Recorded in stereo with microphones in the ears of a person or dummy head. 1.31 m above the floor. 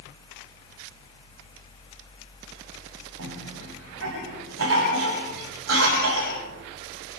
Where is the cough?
85° right, 8.5 m.